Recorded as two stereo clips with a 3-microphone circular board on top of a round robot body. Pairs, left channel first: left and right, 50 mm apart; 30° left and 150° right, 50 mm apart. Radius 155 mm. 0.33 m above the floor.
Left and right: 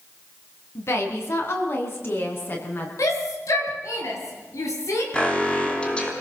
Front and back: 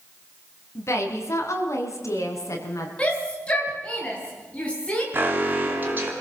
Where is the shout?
100° left, 6.5 m.